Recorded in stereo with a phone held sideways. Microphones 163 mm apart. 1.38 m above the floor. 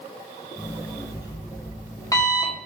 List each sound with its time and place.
0.6 s an alarm clock: 20° left (ahead or behind), 1.0 m